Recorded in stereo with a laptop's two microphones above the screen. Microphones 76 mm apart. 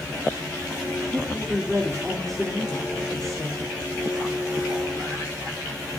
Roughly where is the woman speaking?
Centre.